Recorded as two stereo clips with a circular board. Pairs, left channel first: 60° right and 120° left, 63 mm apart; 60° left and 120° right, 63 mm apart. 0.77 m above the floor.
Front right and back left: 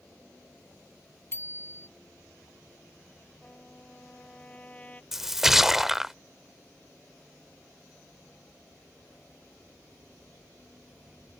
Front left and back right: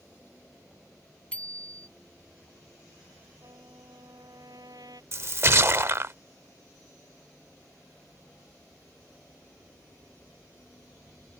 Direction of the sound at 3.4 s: 130° right.